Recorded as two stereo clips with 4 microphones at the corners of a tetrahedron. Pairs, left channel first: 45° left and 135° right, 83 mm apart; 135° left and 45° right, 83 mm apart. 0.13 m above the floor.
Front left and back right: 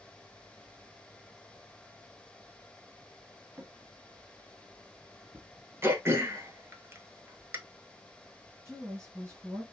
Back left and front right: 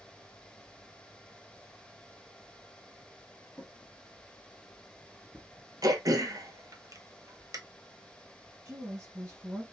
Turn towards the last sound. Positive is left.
turn(degrees=-90)